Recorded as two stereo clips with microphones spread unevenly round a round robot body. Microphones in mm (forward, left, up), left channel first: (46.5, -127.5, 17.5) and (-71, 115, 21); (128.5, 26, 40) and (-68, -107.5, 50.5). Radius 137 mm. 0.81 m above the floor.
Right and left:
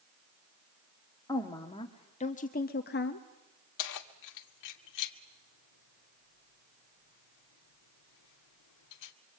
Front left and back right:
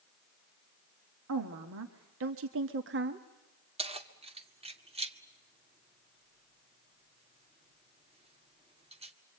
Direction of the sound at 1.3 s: 140° right.